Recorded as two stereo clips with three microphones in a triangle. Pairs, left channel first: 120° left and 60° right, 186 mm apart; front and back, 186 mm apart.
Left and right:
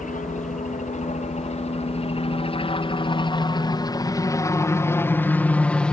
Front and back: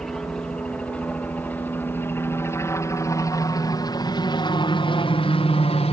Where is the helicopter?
85° left; by 5.9 s 35° left.